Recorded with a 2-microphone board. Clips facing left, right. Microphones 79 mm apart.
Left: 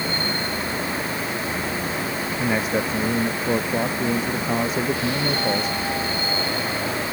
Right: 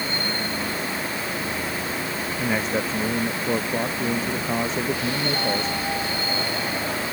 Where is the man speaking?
5° left (ahead or behind).